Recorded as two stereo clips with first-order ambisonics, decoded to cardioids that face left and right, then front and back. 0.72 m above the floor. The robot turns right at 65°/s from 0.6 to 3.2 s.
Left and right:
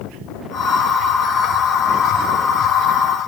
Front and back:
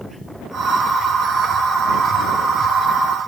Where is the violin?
I don't hear a violin.